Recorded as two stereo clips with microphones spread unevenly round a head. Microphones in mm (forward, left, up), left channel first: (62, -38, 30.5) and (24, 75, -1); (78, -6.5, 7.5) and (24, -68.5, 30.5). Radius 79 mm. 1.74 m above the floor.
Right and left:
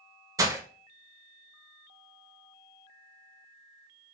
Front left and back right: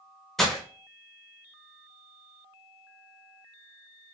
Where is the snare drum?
I don't hear a snare drum.